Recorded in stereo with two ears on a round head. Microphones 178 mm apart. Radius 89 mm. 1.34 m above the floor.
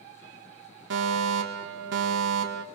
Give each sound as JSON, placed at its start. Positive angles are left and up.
{"t": 0.9, "sound": "a fire alarm", "side_deg": -65, "distance_m": 5.5}